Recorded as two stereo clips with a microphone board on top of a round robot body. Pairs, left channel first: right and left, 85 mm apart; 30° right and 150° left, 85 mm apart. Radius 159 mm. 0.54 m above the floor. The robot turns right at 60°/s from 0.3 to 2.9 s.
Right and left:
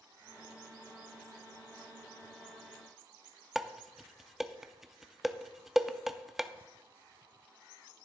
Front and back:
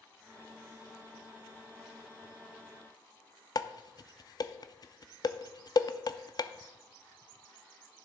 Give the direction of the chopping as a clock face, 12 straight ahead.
I don't hear chopping.